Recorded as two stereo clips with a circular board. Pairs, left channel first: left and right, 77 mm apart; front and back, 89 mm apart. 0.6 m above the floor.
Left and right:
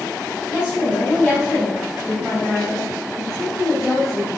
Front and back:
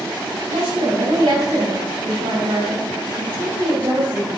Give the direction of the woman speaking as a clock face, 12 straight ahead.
6 o'clock.